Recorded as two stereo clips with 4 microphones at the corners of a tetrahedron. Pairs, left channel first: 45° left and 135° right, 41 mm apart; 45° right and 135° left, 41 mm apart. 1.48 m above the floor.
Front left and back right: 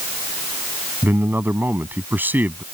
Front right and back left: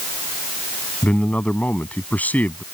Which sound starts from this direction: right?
A man speaking, at 1.0 s.